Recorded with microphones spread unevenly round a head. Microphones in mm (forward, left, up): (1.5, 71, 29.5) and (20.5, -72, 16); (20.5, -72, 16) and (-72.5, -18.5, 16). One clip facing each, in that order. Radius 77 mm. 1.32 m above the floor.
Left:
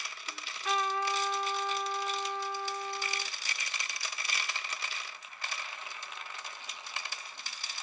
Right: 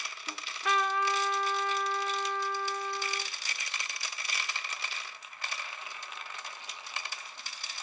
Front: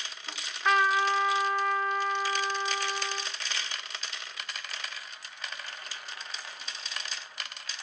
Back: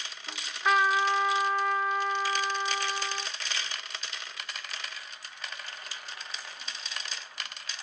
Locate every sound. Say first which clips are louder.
0.3 s a trumpet: right 3 dB, even; 120° right, 0.9 m